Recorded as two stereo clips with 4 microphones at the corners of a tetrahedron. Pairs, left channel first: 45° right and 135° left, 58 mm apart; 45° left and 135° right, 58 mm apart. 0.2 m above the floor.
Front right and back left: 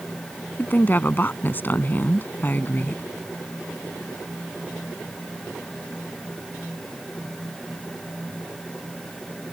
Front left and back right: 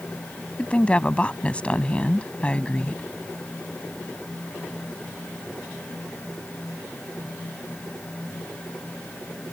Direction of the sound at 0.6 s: 15° right.